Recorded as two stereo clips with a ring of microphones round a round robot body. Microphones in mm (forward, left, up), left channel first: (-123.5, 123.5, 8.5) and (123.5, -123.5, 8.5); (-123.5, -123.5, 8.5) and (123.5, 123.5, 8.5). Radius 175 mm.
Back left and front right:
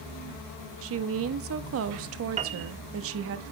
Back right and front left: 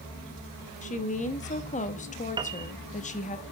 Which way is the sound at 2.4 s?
10° right.